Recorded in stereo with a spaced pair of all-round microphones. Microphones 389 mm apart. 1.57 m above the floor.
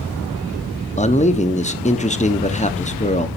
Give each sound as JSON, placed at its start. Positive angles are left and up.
{"t": 1.0, "sound": "a man speaking", "side_deg": 15, "distance_m": 0.9}